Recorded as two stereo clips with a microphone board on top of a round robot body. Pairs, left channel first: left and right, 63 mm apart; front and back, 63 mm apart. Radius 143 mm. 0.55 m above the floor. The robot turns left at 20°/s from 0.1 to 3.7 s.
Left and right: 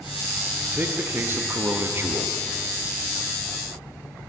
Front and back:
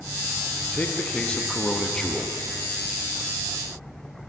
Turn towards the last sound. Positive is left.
turn(degrees=-110)